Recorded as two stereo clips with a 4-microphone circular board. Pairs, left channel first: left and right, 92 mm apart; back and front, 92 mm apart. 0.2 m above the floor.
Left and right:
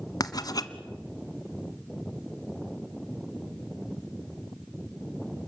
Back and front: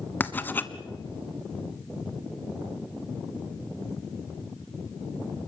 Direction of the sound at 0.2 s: 120° left.